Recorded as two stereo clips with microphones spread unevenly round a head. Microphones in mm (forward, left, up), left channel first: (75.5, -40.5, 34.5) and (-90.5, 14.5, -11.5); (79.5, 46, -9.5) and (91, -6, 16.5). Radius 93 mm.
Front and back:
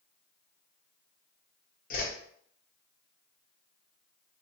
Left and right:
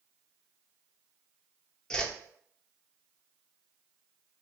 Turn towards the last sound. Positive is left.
turn(degrees=30)